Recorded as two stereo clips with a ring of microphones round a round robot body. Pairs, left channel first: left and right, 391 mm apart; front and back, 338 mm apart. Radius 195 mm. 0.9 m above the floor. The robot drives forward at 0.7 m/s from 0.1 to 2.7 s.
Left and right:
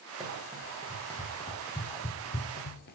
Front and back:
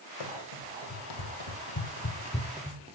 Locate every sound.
0.2 s running footsteps: straight ahead, 3 m; by 3.0 s 130° left, 1.0 m